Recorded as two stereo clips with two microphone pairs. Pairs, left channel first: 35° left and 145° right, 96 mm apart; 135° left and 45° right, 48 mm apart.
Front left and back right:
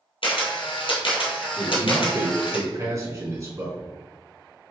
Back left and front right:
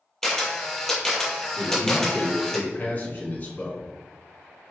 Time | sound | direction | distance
0.2 | a camera shutter | 55° left | 1.8 m
1.6 | a man speaking | 175° left | 2.0 m